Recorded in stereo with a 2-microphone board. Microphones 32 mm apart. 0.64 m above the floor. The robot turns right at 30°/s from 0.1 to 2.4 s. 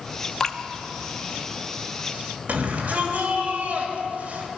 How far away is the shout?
About 3 m.